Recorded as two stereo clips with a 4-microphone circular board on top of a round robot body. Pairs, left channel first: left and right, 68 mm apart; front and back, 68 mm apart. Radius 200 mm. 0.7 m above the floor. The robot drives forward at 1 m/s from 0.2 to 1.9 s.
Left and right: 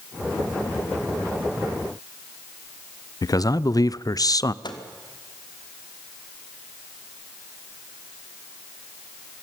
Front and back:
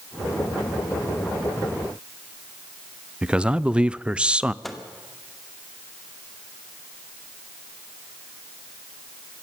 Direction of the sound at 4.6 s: 90° left.